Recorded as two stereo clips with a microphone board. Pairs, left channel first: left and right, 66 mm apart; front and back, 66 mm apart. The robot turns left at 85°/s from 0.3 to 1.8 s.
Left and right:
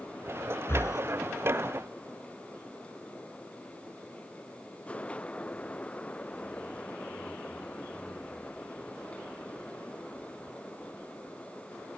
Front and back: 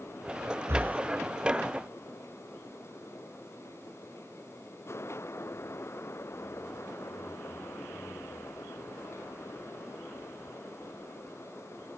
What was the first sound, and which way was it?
Breathing, 140° left.